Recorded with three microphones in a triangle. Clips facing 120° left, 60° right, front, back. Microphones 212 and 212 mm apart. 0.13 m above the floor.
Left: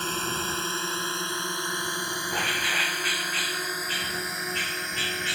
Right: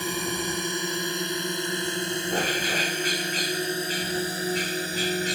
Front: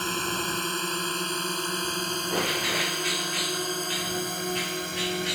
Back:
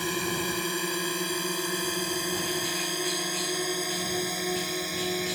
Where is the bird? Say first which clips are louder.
Right 6 dB, front 2 dB; 10° right.